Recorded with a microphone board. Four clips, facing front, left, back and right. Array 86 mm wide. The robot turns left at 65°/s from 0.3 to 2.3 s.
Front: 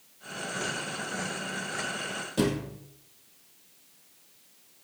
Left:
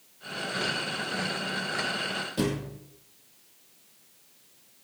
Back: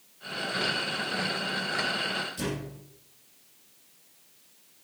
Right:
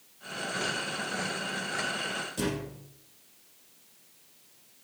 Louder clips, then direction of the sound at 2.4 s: Left 4 dB, front 6 dB; 20° left.